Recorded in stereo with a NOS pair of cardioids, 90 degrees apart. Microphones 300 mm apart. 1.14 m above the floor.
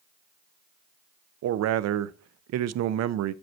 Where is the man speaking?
60° right, 0.6 m.